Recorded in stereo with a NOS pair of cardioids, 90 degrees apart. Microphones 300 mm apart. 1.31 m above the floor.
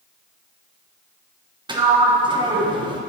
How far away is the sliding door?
About 1.2 m.